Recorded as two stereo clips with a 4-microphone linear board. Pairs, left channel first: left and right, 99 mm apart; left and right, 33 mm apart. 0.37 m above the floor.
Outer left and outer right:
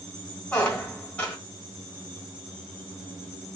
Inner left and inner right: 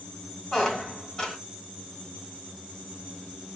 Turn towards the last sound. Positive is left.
turn(degrees=15)  # may be behind; listen again after turning